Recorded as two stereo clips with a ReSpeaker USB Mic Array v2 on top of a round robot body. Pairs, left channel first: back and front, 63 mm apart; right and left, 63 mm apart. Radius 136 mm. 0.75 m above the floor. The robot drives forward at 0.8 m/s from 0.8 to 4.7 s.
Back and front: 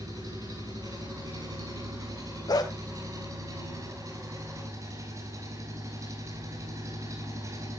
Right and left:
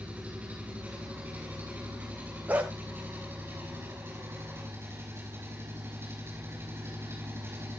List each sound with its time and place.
0.0 s an engine running: 20° left, 8 m; by 7.8 s 35° left, 5.5 m
2.5 s a dog barking: 155° left, 1.7 m; by 2.7 s 160° left, 1.9 m